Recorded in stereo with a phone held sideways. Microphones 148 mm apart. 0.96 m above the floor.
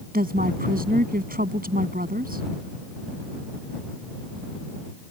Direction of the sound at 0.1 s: 75° right (ahead or behind).